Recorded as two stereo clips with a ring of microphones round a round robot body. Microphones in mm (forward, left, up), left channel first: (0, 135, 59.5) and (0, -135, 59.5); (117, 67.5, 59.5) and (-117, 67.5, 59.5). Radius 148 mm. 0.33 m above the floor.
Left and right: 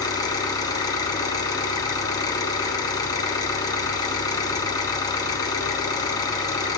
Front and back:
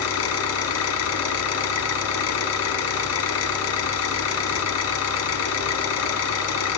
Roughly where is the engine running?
Ahead.